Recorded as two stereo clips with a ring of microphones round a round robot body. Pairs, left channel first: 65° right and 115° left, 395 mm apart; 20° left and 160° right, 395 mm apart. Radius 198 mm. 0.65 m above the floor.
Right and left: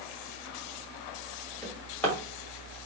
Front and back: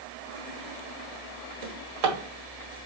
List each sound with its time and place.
1.6 s a drawer: 155° right, 1.9 m